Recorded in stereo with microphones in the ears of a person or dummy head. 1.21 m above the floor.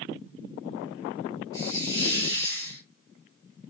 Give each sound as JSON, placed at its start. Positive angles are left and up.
{"t": 1.5, "sound": "a hiss", "side_deg": 20, "distance_m": 4.0}